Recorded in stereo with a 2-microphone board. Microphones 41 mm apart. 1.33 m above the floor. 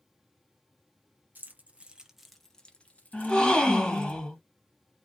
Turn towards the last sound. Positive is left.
turn(degrees=20)  # may be behind; listen again after turning